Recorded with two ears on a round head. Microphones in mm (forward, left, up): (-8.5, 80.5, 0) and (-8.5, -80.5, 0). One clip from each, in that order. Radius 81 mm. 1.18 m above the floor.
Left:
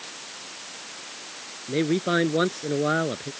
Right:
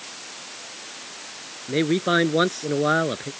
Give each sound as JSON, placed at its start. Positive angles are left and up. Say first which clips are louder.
{"t": 1.7, "sound": "a man speaking", "louder": "right 3 dB", "side_deg": -25}